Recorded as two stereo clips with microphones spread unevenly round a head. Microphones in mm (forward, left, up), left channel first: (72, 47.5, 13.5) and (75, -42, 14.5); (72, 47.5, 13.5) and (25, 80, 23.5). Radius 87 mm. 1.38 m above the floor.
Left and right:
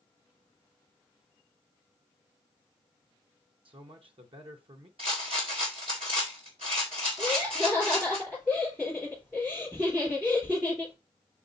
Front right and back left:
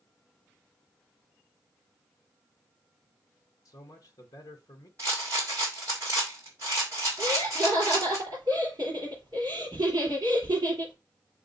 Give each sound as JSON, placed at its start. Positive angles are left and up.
{"t": 3.6, "sound": "a man speaking", "azimuth_deg": -65, "distance_m": 1.0}
{"t": 5.0, "sound": "a rattle", "azimuth_deg": -145, "distance_m": 1.7}
{"t": 7.2, "sound": "laughter", "azimuth_deg": -170, "distance_m": 4.0}